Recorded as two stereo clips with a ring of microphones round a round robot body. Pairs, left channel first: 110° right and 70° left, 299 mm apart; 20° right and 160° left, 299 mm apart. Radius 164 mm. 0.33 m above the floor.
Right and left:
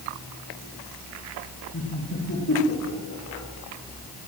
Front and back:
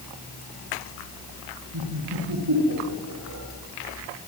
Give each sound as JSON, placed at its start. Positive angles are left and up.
{"t": 1.7, "sound": "laughter", "azimuth_deg": -170, "distance_m": 9.0}